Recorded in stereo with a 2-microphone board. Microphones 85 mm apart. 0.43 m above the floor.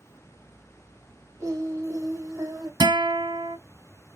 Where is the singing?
40° right (ahead or behind), 1.2 m.